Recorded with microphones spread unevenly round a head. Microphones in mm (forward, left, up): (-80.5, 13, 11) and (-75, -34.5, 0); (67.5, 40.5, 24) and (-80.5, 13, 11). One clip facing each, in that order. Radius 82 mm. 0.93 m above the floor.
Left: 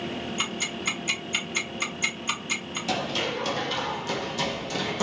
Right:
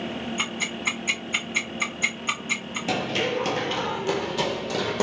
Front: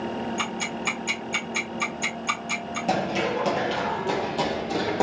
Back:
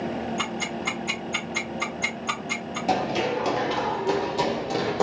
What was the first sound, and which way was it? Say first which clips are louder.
Ticking: right 3 dB, even; 60° right.